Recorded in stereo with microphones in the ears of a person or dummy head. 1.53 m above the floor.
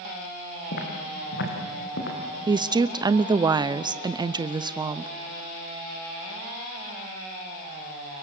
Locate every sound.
0.7 s footsteps: 60° left (ahead or behind), 5 m
2.5 s a woman speaking: 20° right (ahead or behind), 0.7 m